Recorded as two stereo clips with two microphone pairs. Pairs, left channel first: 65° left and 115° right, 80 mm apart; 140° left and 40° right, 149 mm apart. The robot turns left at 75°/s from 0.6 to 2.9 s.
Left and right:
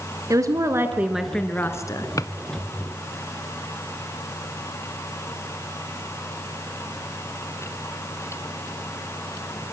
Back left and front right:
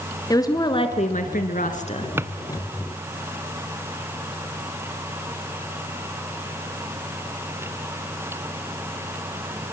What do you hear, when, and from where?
0.3 s a woman speaking: 155° right, 2.5 m; by 2.1 s 90° left, 2.5 m
2.2 s a drawer: 30° left, 0.8 m; by 2.3 s 20° left, 0.8 m